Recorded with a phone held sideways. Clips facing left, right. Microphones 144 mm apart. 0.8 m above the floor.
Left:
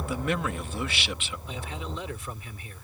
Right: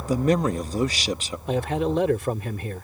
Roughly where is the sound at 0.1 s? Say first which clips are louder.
Right 10 dB; right.